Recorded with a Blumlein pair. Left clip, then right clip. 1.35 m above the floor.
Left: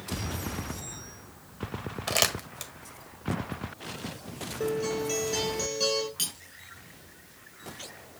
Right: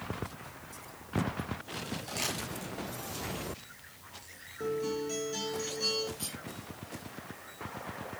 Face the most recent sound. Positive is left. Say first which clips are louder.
# left 8 dB
turn(degrees=50)